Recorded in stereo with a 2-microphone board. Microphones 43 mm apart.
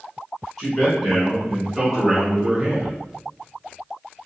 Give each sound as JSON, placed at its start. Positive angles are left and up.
{"t": 0.6, "sound": "a man speaking", "side_deg": 15, "distance_m": 1.3}